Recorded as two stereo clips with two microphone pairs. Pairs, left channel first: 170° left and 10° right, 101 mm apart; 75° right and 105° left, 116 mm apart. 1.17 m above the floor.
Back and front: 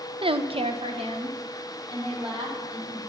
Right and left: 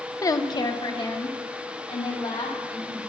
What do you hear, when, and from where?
0.2 s a woman speaking: 15° right, 0.6 m; by 3.1 s 35° right, 3.5 m